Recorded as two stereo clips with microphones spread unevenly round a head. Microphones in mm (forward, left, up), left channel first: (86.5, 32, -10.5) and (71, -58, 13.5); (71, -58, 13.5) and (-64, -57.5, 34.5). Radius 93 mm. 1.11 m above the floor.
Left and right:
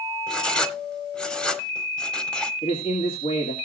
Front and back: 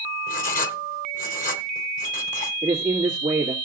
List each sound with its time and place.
0.3 s writing: 10° right, 1.4 m
2.6 s a man speaking: 105° left, 2.5 m